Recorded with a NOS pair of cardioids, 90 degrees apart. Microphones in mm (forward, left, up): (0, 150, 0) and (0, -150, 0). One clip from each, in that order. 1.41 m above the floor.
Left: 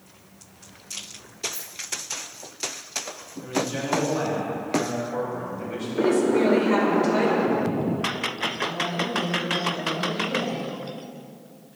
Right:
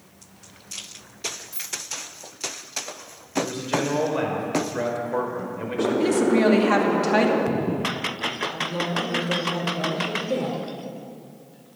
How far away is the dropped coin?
About 2.5 m.